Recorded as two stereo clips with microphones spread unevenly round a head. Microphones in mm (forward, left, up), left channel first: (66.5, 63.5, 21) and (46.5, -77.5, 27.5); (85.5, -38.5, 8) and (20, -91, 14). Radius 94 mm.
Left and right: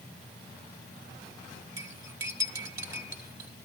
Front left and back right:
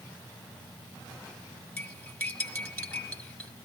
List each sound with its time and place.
1.8 s cutlery clinking: 30° right, 2.5 m